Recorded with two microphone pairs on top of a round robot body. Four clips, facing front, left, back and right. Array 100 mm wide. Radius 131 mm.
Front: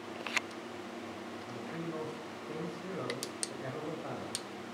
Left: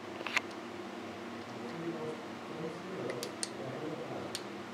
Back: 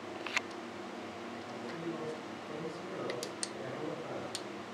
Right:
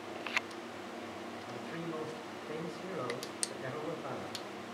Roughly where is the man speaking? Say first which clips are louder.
Left 1 dB, even; right.